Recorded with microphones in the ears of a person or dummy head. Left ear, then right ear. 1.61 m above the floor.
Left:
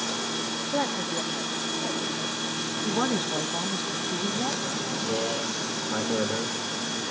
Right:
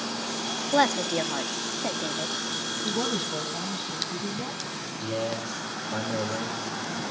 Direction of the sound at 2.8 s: 45° left (ahead or behind).